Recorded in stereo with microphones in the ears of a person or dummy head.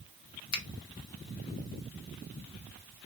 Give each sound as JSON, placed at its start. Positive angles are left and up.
{"t": 0.5, "sound": "a finger snap", "side_deg": 80, "distance_m": 0.7}